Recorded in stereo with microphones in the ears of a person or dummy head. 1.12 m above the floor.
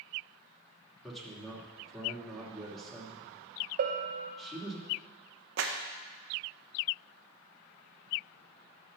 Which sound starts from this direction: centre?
A man speaking, at 1.0 s.